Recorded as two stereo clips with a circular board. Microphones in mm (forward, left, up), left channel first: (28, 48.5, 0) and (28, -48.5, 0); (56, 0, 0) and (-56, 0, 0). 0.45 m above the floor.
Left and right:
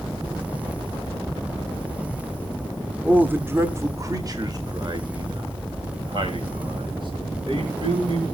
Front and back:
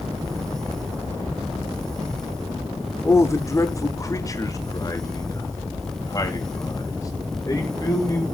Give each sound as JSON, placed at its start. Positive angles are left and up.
{"t": 3.0, "sound": "a man speaking", "azimuth_deg": -30, "distance_m": 1.0}